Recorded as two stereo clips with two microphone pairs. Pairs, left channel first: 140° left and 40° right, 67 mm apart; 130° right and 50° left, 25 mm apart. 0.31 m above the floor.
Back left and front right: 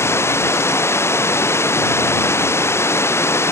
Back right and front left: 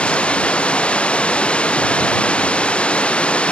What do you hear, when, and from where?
0.0 s running water: 165° right